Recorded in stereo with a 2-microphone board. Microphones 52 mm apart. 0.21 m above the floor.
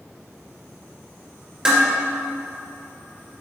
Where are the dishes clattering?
15° right (ahead or behind), 2 m.